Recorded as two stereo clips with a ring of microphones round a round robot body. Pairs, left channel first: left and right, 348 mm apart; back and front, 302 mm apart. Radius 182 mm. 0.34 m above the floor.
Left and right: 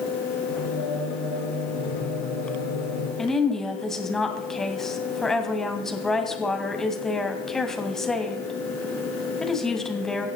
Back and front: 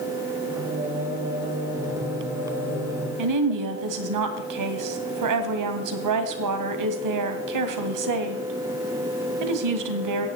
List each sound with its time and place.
0.5 s singing: 80° left, 9.5 m
3.2 s a woman speaking: straight ahead, 2 m